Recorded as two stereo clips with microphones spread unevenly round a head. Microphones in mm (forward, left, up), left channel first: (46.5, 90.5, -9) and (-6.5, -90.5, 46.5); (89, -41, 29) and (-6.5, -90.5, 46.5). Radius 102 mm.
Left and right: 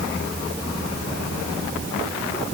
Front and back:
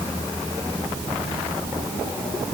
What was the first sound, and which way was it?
Only background noise.